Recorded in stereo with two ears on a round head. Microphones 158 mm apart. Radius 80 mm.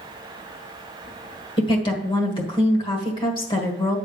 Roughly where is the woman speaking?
Left.